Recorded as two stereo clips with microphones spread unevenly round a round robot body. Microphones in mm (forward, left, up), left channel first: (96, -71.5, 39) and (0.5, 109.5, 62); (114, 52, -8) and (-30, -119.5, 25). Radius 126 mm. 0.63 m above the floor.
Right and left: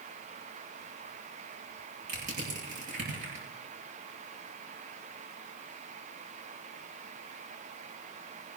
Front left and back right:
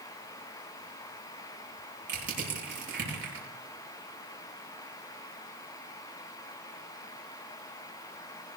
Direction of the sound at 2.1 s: Straight behind.